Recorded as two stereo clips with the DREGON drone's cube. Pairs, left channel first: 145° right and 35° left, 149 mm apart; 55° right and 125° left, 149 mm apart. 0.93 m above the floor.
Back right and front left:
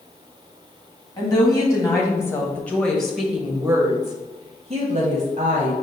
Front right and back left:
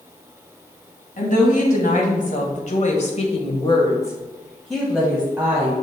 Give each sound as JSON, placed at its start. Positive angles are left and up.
{"t": 1.2, "sound": "a woman speaking", "azimuth_deg": -85, "distance_m": 1.6}